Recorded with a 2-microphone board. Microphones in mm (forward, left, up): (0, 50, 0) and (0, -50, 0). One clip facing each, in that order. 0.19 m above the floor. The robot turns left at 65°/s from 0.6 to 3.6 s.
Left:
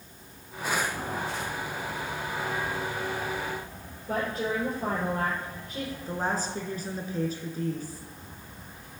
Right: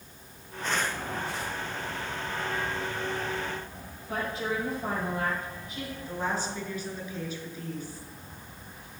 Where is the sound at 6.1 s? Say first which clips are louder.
Left 1 dB; 40° left (ahead or behind), 2.5 m.